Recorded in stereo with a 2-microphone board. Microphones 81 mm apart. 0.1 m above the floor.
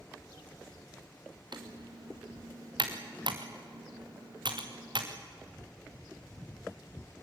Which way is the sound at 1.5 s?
70° right (ahead or behind).